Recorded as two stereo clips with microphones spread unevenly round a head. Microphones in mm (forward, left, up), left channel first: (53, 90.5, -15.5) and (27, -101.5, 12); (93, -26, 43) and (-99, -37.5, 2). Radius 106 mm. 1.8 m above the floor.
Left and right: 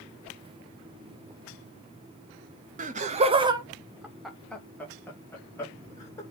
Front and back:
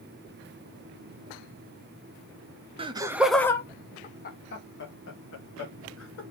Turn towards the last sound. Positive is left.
turn(degrees=5)